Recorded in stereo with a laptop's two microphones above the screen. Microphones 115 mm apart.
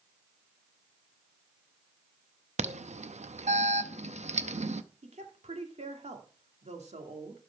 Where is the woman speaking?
75° right (ahead or behind), 2 m.